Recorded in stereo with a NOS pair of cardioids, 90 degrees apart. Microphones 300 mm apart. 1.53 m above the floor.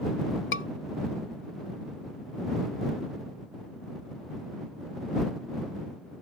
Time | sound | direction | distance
0.5 | a scream | 40° left | ?